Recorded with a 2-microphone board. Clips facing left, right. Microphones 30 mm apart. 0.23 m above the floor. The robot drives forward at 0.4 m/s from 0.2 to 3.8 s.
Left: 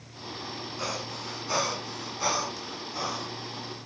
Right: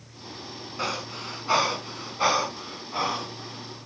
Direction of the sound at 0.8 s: 40° right (ahead or behind).